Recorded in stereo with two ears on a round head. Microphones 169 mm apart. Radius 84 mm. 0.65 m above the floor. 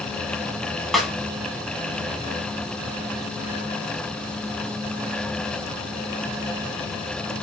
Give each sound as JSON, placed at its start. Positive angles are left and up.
{"t": 0.9, "sound": "a snare drum", "side_deg": 0, "distance_m": 0.8}